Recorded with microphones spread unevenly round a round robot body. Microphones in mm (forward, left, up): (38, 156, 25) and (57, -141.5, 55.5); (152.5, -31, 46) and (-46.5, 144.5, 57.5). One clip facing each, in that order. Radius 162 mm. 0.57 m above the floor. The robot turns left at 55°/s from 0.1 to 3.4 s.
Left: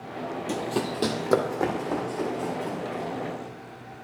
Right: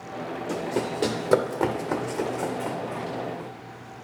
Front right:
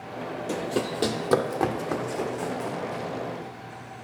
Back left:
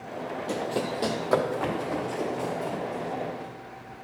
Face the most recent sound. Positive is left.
turn(degrees=-110)